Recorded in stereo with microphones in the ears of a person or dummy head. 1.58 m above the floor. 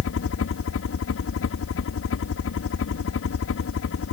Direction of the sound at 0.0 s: 70° left (ahead or behind).